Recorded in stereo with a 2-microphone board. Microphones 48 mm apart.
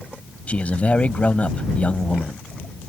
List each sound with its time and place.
0.5 s a man speaking: 30° left (ahead or behind)